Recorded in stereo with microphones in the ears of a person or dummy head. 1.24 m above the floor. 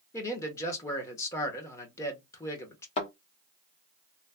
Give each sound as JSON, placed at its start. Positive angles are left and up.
{"t": 0.1, "sound": "a man speaking", "side_deg": 20, "distance_m": 1.1}
{"t": 3.0, "sound": "a thud", "side_deg": 35, "distance_m": 1.2}